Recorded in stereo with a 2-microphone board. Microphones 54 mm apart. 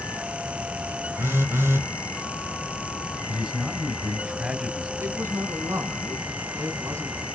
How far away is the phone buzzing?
About 1.2 m.